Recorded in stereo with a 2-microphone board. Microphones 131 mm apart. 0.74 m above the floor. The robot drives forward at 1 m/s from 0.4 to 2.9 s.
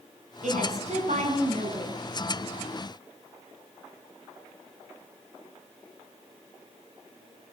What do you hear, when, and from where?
0.4 s a woman speaking: 70° right (ahead or behind), 7.5 m; by 2.0 s 60° right (ahead or behind), 8 m